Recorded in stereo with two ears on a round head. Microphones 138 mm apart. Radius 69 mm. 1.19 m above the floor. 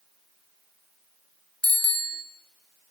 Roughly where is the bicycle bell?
Centre.